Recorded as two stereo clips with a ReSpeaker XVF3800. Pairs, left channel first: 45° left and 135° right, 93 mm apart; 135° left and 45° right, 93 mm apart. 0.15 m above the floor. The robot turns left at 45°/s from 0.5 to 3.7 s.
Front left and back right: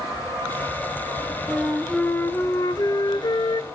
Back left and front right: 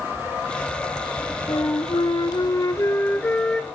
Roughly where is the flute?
Behind left.